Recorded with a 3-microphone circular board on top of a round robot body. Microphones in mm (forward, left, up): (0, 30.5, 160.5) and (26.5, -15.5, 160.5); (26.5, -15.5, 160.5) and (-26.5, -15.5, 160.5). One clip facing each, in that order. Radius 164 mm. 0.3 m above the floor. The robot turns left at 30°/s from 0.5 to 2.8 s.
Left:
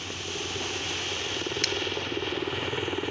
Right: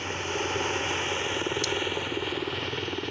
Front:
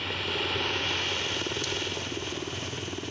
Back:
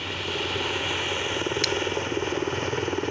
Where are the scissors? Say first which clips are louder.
Right 1 dB, back 7 dB; 155° left.